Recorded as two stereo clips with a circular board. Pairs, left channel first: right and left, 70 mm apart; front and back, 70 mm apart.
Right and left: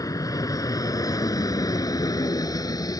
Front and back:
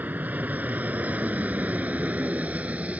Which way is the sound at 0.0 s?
115° right.